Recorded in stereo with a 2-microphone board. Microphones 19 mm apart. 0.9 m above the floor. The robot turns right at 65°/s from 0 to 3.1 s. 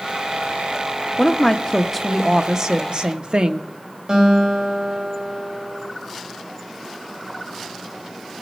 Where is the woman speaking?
125° left, 0.8 m; by 3.7 s 110° right, 0.8 m.